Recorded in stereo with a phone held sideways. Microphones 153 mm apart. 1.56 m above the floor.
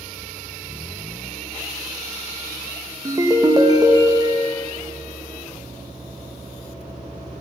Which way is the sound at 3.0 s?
25° right (ahead or behind).